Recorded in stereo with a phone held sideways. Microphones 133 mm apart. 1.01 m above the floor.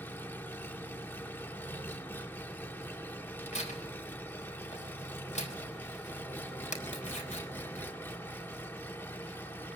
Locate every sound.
0.0 s an engine running: 15° left (ahead or behind), 1.0 m
3.5 s tearing paper: 60° left (ahead or behind), 4 m